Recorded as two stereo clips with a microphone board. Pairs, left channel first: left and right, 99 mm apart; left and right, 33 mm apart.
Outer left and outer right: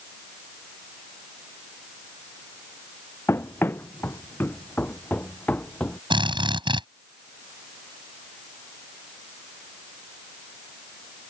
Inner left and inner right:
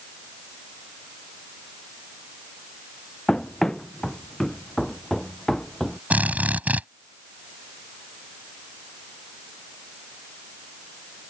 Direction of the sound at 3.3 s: 25° left (ahead or behind).